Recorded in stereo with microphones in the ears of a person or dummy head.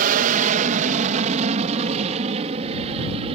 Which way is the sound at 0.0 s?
50° right (ahead or behind).